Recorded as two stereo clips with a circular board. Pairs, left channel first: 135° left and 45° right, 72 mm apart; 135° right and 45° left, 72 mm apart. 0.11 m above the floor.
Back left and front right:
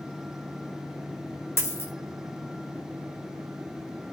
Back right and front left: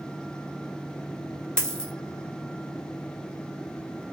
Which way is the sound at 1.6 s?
155° left.